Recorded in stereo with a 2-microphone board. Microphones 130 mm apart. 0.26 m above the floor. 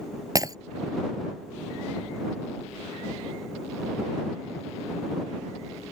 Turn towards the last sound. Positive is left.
turn(degrees=-30)  # may be behind; listen again after turning